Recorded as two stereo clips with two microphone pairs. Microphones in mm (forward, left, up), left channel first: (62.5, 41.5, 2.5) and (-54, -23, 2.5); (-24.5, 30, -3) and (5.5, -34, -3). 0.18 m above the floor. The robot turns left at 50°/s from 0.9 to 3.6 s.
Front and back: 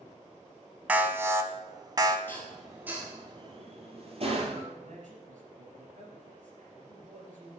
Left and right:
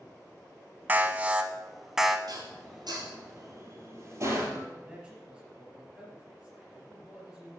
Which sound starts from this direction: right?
An alarm, at 0.9 s.